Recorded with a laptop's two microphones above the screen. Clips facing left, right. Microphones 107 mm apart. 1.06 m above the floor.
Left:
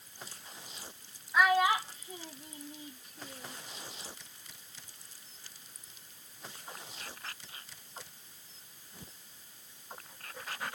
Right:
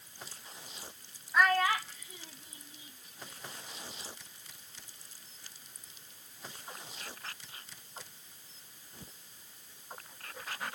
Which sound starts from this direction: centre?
A child speaking, at 1.3 s.